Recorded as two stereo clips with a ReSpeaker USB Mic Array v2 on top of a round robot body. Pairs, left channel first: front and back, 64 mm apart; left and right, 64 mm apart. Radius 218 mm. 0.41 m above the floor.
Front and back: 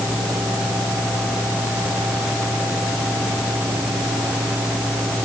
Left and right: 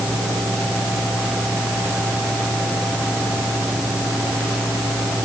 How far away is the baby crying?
No baby crying in this recording.